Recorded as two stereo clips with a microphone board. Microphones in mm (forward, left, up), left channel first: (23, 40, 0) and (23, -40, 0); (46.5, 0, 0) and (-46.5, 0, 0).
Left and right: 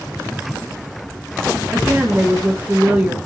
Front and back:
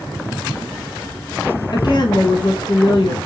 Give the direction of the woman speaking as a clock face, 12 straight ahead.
1 o'clock.